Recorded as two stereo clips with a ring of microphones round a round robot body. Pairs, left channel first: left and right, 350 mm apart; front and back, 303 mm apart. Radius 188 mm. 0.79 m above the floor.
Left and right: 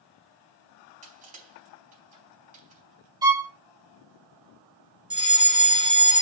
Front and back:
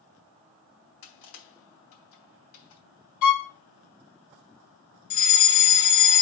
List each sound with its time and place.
1.0 s crushing: 20° right, 4 m
3.2 s a violin: 10° right, 1.9 m
5.1 s a fire alarm: 15° right, 3 m